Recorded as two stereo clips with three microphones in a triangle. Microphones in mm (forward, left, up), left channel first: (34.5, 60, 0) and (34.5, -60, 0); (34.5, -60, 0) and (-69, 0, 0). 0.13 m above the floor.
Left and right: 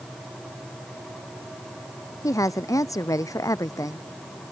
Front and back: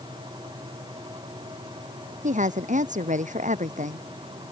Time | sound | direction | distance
2.2 | a woman speaking | 155° left | ?